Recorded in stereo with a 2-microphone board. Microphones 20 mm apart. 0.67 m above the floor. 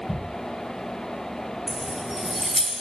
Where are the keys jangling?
25° right (ahead or behind), 2.5 m; by 2.7 s 15° right (ahead or behind), 2.5 m.